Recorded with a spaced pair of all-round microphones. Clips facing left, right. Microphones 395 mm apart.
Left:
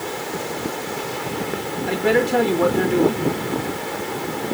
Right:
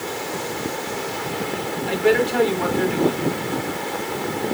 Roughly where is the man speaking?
Left.